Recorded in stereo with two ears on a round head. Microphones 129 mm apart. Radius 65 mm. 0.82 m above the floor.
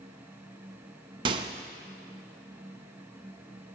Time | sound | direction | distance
1.2 | a microwave | 35° right (ahead or behind) | 0.6 m